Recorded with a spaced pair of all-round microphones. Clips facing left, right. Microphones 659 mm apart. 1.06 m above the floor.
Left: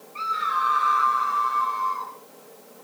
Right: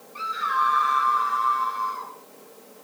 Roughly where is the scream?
Right.